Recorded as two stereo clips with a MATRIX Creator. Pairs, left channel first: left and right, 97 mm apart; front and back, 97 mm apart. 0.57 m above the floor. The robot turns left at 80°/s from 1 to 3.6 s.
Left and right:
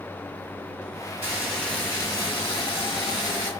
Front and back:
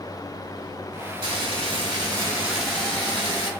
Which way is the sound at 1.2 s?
155° right.